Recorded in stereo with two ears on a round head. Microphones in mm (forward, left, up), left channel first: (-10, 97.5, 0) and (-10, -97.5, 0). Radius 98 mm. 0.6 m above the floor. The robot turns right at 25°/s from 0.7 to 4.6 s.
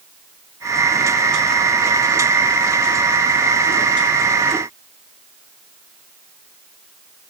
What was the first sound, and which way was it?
Only background noise.